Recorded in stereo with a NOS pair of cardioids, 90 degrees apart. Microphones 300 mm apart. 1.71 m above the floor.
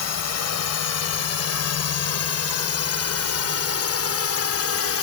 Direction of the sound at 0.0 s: 60° left.